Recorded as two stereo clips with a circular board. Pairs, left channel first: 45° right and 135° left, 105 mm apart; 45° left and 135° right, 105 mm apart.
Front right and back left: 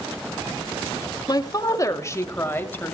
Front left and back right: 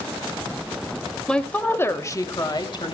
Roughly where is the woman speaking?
Ahead right.